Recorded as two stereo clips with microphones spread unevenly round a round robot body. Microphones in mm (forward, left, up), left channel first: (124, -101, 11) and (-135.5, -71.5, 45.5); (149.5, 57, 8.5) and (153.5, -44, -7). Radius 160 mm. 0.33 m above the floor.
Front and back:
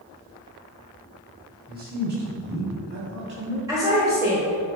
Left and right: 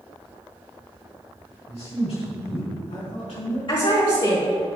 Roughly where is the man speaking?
Behind left.